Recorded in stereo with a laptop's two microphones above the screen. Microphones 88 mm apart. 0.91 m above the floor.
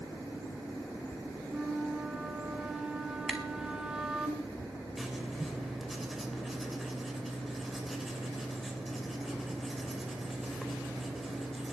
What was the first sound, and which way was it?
A flute, 10° right (ahead or behind).